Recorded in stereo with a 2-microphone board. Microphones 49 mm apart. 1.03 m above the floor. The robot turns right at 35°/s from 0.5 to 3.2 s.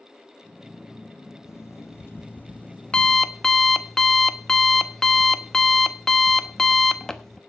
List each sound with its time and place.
1.4 s an alarm clock: 105° left, 0.8 m; by 7.4 s 170° left, 0.8 m